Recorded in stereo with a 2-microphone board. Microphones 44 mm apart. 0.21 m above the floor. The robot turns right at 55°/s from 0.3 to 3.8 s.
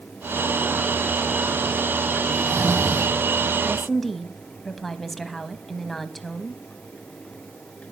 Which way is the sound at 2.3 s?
120° right.